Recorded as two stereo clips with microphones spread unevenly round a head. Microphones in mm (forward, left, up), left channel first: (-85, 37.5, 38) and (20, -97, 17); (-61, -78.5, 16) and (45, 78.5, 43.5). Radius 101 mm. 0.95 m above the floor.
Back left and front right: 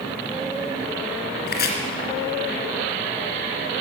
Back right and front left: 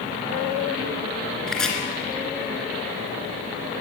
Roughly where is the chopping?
Behind left.